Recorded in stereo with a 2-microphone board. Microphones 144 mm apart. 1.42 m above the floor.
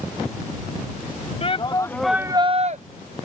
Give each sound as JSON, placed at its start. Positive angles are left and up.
{"t": 1.4, "sound": "a shout", "side_deg": 45}